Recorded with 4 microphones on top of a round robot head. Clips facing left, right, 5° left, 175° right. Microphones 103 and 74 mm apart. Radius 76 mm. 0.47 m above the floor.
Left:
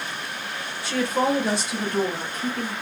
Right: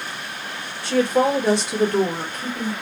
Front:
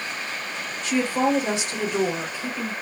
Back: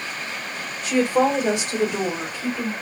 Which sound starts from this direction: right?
A woman speaking, at 0.8 s.